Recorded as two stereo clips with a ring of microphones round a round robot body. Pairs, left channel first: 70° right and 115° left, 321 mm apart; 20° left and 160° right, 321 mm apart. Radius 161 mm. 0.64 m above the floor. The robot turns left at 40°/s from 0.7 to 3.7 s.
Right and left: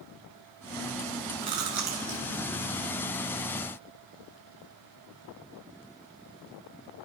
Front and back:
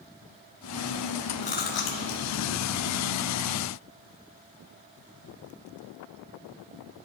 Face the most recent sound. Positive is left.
turn(degrees=0)